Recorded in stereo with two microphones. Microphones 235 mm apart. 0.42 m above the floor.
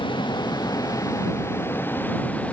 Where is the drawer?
I don't hear a drawer.